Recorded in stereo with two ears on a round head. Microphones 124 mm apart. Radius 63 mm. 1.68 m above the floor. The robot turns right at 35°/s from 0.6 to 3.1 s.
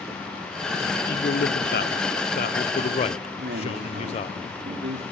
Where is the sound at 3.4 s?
80° right, 3 m.